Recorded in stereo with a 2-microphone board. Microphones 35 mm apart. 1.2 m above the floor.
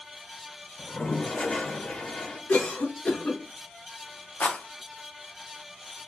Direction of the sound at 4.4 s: 60° left (ahead or behind).